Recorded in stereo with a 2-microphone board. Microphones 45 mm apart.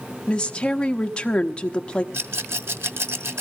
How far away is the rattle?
About 0.9 m.